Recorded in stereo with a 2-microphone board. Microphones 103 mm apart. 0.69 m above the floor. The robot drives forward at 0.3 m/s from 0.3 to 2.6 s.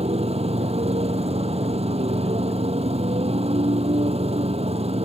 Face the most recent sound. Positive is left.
turn(degrees=-85)